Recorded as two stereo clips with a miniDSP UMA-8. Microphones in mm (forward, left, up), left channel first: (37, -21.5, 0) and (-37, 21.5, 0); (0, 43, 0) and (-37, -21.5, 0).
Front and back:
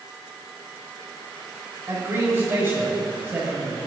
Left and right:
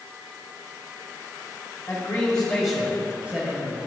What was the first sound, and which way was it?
A man speaking, 115° left.